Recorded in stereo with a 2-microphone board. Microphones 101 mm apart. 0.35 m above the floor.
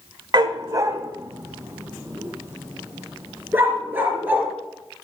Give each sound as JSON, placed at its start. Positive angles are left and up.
{"t": 0.3, "sound": "a dog barking", "side_deg": -40, "distance_m": 0.6}